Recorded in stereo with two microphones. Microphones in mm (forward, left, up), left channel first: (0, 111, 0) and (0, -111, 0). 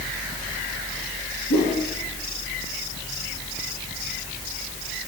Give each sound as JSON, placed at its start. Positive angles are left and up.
{"t": 1.5, "sound": "a whoosh", "side_deg": 75, "distance_m": 6.0}